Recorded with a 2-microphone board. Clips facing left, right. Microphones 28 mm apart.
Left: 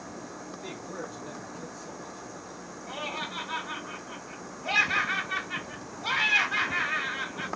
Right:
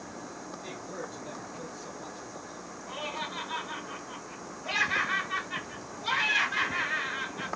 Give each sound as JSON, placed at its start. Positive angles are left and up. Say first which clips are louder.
{"t": 0.6, "sound": "a man speaking", "louder": "left 2 dB", "side_deg": 15, "distance_m": 0.9}
{"t": 2.9, "sound": "laughter", "louder": "left 1 dB", "side_deg": 25, "distance_m": 1.5}